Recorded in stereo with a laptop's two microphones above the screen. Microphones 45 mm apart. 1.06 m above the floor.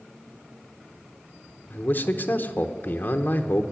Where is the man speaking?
40° left (ahead or behind), 0.9 m.